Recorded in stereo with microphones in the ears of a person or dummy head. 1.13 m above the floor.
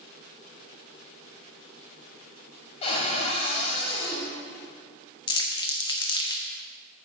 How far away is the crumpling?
About 0.7 m.